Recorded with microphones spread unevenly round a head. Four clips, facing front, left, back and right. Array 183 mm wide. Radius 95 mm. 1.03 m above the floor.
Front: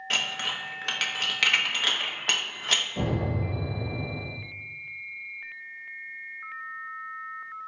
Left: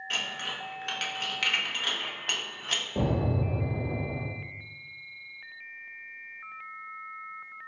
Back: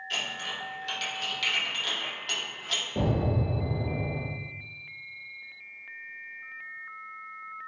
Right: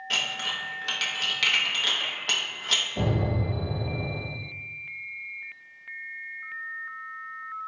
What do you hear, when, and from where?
0.1 s dishes clattering: 15° right, 0.8 m
3.0 s an explosion: 125° left, 1.4 m